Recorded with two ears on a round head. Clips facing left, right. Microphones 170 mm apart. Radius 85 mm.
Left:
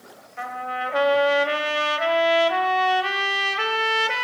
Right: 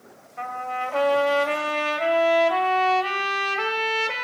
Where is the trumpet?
10° left (ahead or behind), 1.4 m.